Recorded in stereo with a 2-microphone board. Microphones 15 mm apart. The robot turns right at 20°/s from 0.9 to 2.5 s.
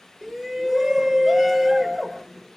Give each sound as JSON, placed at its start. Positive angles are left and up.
{"t": 0.2, "sound": "a shout", "side_deg": -25, "distance_m": 1.2}